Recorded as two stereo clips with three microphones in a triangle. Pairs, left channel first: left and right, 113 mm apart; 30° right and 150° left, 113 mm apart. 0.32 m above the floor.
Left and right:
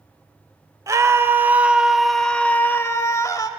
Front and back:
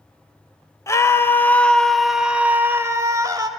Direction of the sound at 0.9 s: 60° right.